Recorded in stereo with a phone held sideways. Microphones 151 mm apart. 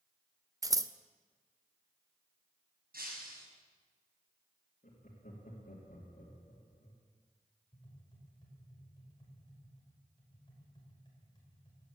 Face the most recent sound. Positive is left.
turn(degrees=30)  # may be behind; listen again after turning